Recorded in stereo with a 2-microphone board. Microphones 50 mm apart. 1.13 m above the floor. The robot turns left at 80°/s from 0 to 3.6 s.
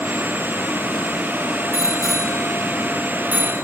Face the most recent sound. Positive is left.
turn(degrees=-60)  # may be behind; listen again after turning